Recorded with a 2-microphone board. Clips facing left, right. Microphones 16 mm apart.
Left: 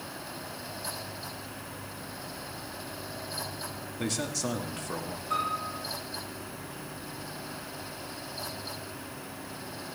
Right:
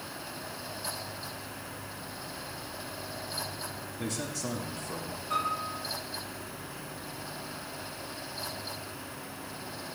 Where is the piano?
5° left (ahead or behind), 6 m.